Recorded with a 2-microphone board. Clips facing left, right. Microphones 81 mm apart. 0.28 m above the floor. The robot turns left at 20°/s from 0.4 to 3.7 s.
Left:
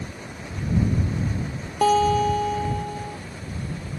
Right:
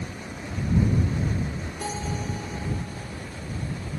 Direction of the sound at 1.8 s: 85° left.